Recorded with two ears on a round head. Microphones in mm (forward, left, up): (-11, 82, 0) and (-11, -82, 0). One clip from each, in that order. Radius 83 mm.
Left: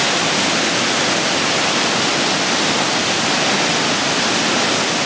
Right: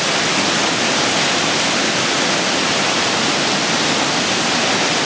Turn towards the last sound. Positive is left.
No sound to turn to.